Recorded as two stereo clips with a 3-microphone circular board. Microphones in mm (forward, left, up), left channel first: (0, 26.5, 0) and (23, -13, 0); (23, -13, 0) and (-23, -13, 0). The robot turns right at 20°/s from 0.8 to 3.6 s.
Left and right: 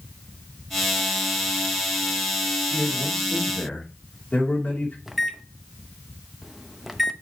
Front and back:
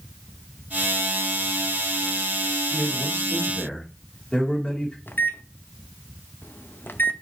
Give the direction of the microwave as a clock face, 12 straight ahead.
11 o'clock.